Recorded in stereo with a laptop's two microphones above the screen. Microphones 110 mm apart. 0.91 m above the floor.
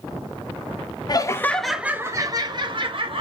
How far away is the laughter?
About 0.6 m.